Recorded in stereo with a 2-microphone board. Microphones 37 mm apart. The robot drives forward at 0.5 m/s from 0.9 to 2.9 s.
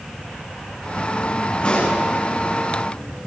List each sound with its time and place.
1.6 s a pop: 40° left (ahead or behind), 9.5 m; by 2.0 s 35° left (ahead or behind), 9.5 m